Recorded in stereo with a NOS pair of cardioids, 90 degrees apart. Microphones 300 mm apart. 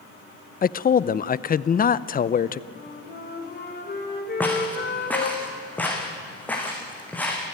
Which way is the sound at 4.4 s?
5° left.